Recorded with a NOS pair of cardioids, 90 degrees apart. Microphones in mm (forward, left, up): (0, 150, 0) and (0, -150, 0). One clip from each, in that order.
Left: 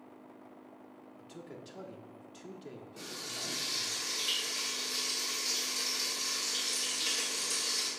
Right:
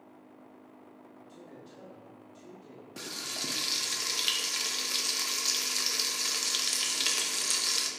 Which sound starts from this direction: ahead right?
Frying, at 3.0 s.